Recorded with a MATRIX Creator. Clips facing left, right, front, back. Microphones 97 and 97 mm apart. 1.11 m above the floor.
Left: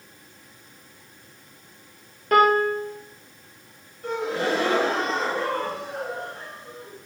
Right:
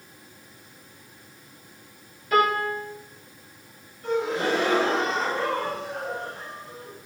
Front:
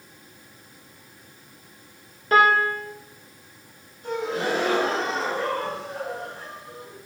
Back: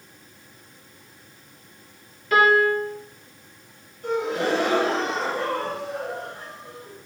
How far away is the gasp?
About 0.9 m.